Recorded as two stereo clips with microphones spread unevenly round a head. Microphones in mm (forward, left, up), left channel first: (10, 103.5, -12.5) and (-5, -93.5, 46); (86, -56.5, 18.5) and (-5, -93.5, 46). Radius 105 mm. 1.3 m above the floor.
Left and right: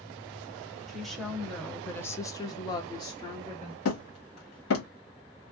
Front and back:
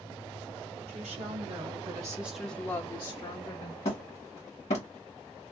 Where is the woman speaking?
170° left, 1.0 m; by 3.8 s 20° left, 1.0 m.